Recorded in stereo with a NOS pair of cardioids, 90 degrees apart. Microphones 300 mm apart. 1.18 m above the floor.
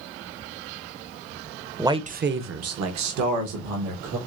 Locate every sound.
1.8 s a man speaking: 5° right, 0.6 m; by 4.2 s 80° right, 1.6 m